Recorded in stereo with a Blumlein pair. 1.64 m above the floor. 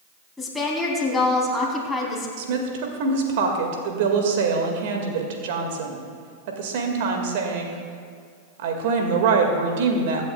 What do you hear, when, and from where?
0.4 s a woman speaking: 10° left, 3.5 m
2.4 s a woman speaking: 50° right, 1.9 m